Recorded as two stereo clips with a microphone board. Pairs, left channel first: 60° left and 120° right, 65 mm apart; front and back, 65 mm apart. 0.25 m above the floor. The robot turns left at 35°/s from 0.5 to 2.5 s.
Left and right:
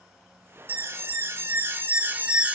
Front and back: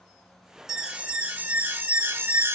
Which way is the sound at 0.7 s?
110° right.